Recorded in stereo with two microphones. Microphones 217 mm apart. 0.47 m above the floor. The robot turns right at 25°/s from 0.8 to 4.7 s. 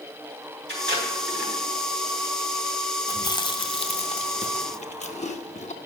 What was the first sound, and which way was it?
Tape being pulled, 55° right (ahead or behind).